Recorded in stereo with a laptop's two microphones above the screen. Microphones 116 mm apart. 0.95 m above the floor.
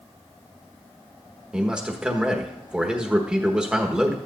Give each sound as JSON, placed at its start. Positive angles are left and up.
{"t": 1.5, "sound": "a man speaking", "side_deg": -10, "distance_m": 1.3}